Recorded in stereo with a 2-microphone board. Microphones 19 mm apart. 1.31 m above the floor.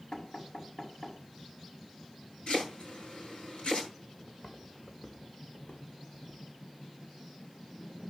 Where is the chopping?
80° left, 9.5 m.